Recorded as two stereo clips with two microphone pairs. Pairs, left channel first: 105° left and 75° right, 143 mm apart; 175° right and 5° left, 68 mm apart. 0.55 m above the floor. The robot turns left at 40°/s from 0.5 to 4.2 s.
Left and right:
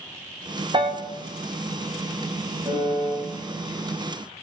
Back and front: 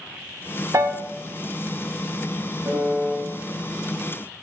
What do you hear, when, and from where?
0.7 s a piano: 25° right, 0.6 m; by 1.0 s 35° right, 0.6 m
2.6 s a piano: 25° right, 2.5 m; by 3.1 s 45° right, 2.5 m